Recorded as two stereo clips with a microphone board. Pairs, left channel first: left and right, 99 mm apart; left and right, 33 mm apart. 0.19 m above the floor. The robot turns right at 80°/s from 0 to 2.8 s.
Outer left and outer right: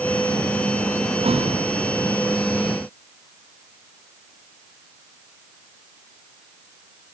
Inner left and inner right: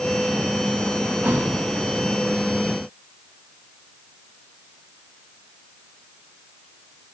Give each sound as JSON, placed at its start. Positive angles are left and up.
{"t": 1.2, "sound": "a thud", "side_deg": -70, "distance_m": 4.5}